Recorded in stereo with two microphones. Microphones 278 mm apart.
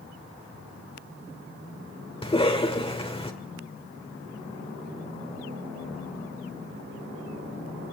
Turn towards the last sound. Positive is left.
turn(degrees=20)  # may be behind; listen again after turning